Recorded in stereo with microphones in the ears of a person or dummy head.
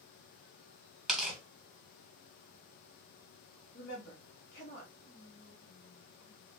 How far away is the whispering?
About 2.5 m.